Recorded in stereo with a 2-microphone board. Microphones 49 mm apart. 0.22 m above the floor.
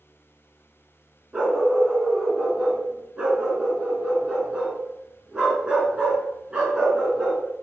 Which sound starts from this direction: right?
A dog barking, at 1.3 s.